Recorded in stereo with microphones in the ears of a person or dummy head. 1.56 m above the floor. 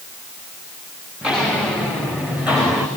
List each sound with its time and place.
1.2 s footsteps: 5° right (ahead or behind), 6.5 m; by 2.9 s 10° right (ahead or behind), 5.5 m